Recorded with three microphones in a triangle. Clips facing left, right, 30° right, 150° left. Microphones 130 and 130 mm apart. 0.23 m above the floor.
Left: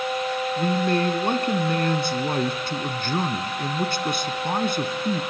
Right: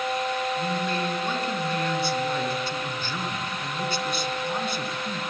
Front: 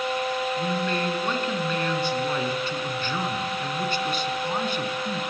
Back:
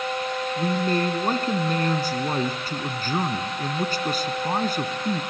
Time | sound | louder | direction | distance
0.6 | a man speaking | left 5 dB, back 3 dB | 110° left | 2 m